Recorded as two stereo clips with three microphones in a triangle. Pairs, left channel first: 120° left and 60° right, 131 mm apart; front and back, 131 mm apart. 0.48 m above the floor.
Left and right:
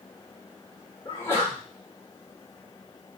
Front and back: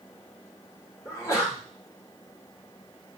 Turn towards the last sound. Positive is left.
turn(degrees=55)